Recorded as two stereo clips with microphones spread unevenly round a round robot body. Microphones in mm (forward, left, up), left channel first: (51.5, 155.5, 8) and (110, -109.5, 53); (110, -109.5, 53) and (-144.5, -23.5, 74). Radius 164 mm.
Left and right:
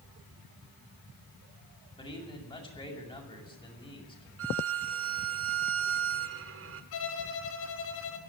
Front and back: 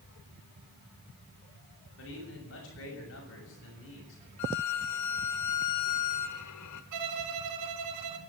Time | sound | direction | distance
2.0 | a man speaking | 30° left | 7 m
4.4 | a violin | 40° right | 1.5 m
6.9 | a violin | 140° left | 1.8 m